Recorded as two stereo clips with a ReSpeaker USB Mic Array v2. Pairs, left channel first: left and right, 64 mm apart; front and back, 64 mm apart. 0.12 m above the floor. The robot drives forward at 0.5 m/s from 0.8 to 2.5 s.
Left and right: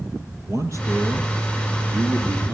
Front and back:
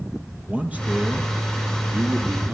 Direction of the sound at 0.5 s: 115° right.